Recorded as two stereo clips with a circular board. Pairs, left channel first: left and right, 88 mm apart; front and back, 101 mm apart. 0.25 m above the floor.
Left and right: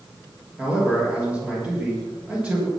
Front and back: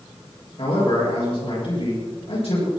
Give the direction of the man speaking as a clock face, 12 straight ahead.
1 o'clock.